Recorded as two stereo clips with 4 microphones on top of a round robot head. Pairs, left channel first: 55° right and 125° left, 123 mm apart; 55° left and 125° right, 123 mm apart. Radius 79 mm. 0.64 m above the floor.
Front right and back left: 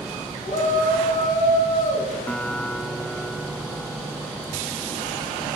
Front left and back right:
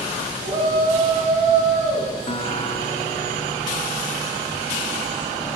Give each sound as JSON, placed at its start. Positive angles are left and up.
{"t": 0.4, "sound": "a shout", "azimuth_deg": -85, "distance_m": 5.5}
{"t": 2.3, "sound": "a guitar", "azimuth_deg": 25, "distance_m": 1.4}